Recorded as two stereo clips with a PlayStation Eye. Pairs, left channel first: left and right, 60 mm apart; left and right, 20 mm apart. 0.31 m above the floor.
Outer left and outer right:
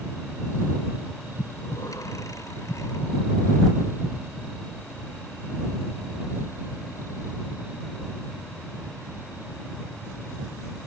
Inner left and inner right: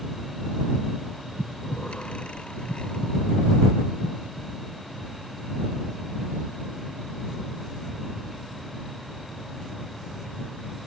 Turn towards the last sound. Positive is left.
turn(degrees=70)  # may be behind; listen again after turning